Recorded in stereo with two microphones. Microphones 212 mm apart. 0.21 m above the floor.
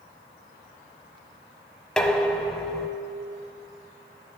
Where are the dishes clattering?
5° left (ahead or behind), 0.8 m.